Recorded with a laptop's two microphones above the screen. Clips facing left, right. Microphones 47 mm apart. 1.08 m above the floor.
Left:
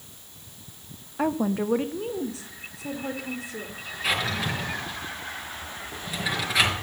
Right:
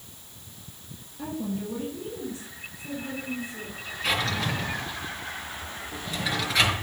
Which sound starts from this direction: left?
A woman speaking, at 1.2 s.